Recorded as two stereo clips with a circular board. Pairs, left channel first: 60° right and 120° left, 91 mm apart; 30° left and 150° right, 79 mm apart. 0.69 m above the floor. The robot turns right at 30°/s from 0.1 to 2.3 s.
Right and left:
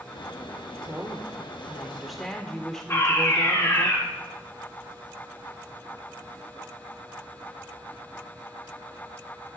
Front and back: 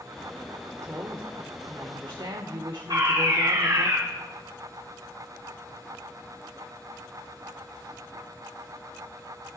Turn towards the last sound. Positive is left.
turn(degrees=-120)